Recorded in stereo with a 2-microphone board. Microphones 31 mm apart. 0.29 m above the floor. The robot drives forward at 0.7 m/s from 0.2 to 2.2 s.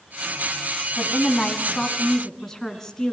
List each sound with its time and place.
1.0 s a woman speaking: 20° left (ahead or behind), 2.5 m; by 3.1 s 15° left (ahead or behind), 3 m